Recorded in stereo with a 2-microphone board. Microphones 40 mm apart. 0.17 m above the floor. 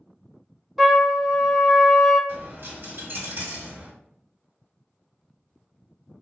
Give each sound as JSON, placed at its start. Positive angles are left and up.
{"t": 0.8, "sound": "a trumpet", "side_deg": -5, "distance_m": 0.9}
{"t": 2.3, "sound": "a dropped coin", "side_deg": -65, "distance_m": 1.3}